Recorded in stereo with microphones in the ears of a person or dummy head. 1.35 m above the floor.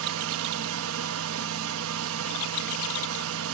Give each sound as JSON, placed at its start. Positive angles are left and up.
{"t": 0.0, "sound": "a fan", "side_deg": -80, "distance_m": 0.7}